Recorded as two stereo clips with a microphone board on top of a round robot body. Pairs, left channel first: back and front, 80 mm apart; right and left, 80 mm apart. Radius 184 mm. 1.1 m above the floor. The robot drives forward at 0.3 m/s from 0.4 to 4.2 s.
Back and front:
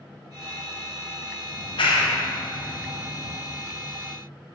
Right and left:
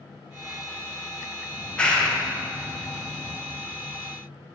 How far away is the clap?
About 0.7 m.